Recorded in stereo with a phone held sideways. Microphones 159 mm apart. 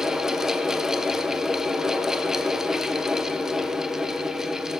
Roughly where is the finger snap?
I don't hear a finger snap.